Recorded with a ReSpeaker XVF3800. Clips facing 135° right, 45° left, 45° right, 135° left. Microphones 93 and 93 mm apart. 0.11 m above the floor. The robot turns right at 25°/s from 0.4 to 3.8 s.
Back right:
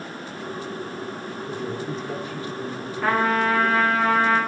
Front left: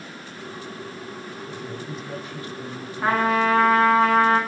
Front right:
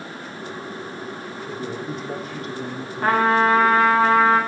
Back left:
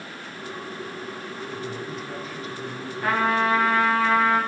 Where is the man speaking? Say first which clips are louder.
Back right 6 dB, front right 5 dB; 95° right, 4.5 m; by 3.3 s 45° right, 4.5 m.